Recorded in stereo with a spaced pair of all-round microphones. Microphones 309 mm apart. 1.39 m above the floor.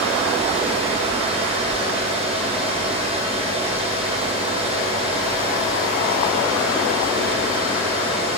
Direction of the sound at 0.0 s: 20° right (ahead or behind).